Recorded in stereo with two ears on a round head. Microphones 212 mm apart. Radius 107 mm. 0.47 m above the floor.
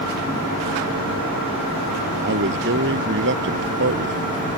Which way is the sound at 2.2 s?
50° right (ahead or behind).